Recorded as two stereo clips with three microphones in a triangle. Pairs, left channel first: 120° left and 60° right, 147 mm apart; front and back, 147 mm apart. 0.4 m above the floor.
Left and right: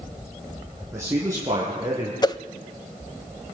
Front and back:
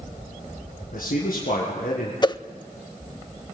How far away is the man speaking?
About 4.5 m.